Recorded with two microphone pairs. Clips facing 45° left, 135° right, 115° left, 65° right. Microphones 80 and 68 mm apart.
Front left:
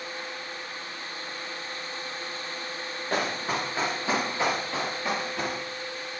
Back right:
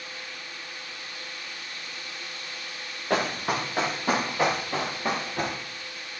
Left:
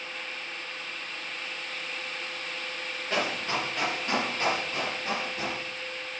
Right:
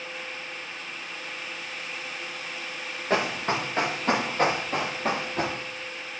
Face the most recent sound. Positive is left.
turn(degrees=-85)